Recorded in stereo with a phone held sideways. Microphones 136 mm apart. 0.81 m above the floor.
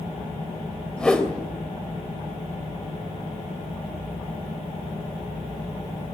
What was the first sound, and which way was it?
A whoosh, 5° left (ahead or behind).